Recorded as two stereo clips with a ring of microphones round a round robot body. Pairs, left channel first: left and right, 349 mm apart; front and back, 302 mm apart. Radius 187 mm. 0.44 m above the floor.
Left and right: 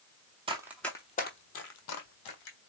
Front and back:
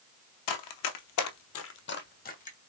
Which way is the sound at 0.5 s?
15° right.